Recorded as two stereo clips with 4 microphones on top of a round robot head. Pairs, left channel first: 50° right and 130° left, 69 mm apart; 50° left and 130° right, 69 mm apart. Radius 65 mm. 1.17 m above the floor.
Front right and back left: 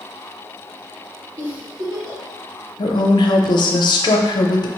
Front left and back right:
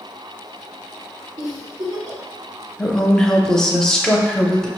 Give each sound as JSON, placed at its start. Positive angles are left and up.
{"t": 1.4, "sound": "a giggle", "azimuth_deg": -170, "distance_m": 1.2}
{"t": 2.8, "sound": "a woman speaking", "azimuth_deg": -30, "distance_m": 0.6}